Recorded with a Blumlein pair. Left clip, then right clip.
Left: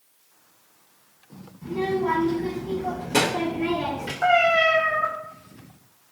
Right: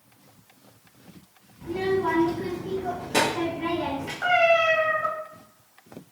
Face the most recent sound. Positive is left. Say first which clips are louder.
# left 1 dB
turn(degrees=0)